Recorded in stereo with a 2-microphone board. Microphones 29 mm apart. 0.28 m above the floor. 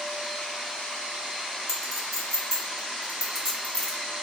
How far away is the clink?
About 1.7 m.